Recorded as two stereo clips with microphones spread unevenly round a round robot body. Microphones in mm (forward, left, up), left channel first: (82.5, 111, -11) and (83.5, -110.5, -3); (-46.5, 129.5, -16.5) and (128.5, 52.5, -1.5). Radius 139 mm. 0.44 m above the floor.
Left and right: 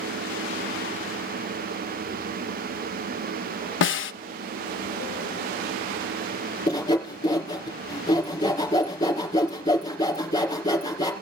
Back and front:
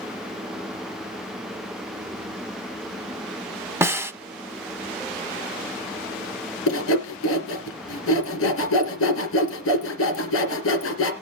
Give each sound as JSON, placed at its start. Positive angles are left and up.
{"t": 3.8, "sound": "a snare drum", "azimuth_deg": 55, "distance_m": 0.7}
{"t": 6.7, "sound": "sawing", "azimuth_deg": 165, "distance_m": 2.5}